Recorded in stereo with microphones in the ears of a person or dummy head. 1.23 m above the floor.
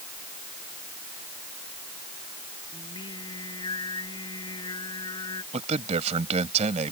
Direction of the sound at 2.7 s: 30° left (ahead or behind).